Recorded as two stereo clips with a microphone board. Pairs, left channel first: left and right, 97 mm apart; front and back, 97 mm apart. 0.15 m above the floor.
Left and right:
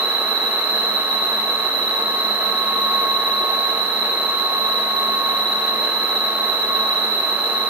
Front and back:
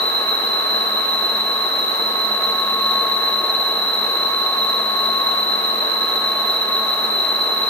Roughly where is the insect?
Ahead left.